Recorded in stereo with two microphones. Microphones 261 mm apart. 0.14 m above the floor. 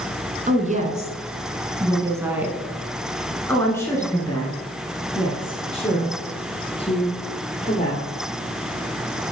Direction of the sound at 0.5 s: 30° right (ahead or behind).